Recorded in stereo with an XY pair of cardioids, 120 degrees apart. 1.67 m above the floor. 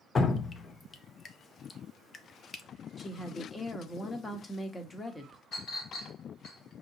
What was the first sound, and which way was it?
Dripping, 35° left.